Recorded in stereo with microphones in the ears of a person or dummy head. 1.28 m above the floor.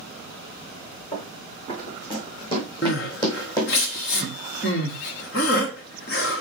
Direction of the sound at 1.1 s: 30° left (ahead or behind).